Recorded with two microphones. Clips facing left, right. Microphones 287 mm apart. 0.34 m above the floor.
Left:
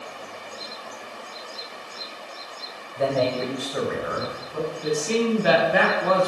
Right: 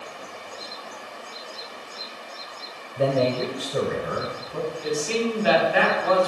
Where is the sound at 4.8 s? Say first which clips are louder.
Left 3 dB; 60° left (ahead or behind), 2.5 m.